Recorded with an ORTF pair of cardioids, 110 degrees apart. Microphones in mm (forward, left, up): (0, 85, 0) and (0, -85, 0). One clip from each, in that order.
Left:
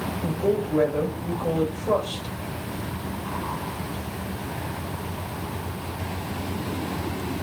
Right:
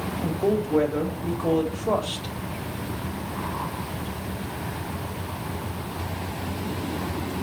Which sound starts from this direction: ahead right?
A woman speaking, at 0.2 s.